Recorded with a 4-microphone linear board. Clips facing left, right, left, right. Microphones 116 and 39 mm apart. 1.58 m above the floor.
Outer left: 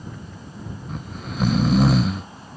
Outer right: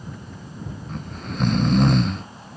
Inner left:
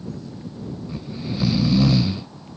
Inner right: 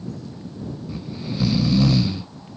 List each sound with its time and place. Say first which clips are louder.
0.9 s snoring: even, inner left 1 dB; 5° left (ahead or behind)